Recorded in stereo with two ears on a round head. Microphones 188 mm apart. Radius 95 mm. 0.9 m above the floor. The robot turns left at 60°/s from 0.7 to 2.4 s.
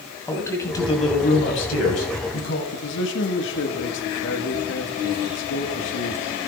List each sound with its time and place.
0.3 s a man speaking: 165° left, 5.5 m; by 2.6 s 65° left, 5.5 m
2.7 s a man speaking: 60° left (ahead or behind), 1.9 m